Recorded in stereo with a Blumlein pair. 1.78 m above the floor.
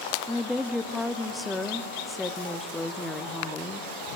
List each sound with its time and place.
0.3 s a woman speaking: 5° left, 0.9 m